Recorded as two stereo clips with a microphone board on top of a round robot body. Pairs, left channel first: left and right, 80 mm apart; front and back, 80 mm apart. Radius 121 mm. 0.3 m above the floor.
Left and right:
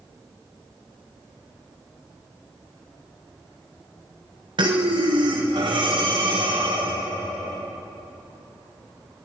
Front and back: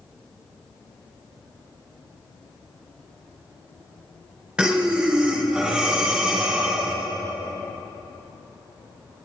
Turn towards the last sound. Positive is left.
turn(degrees=-105)